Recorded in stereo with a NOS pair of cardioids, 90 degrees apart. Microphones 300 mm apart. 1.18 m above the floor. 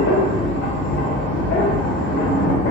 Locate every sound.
0.0 s a machine running: 65° left, 1.4 m